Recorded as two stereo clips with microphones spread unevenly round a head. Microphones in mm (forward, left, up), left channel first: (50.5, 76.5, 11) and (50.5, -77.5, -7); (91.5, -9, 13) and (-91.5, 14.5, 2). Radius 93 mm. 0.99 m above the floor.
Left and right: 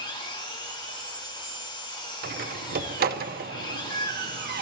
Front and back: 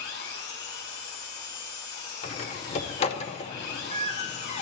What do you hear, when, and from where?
0.0 s an engine running: 30° left, 3.5 m
2.2 s a door slam: 65° right, 0.8 m